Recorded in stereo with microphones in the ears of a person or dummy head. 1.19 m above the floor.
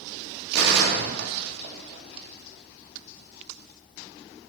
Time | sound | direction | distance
0.5 | a gunshot | 65° right (ahead or behind) | 0.5 m